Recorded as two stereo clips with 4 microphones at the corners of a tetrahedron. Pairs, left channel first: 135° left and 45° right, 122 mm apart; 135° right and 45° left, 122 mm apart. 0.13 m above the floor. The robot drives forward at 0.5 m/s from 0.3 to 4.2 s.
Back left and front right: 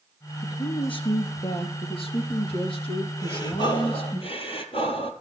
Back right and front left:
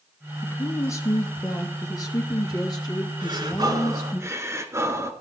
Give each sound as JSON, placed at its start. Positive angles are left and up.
{"t": 0.4, "sound": "a woman speaking", "azimuth_deg": 160, "distance_m": 1.5}
{"t": 3.2, "sound": "breathing", "azimuth_deg": 85, "distance_m": 1.3}